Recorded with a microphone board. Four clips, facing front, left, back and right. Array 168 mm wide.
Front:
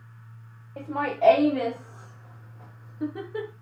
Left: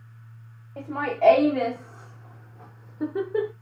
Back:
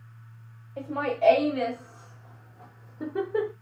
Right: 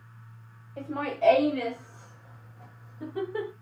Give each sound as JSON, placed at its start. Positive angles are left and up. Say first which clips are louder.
{"t": 0.8, "sound": "laughter", "louder": "left 4 dB, front 1 dB", "azimuth_deg": 45, "distance_m": 1.5}